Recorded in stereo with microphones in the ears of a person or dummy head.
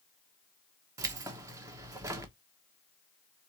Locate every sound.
1.0 s keys jangling: 15° right (ahead or behind), 1.0 m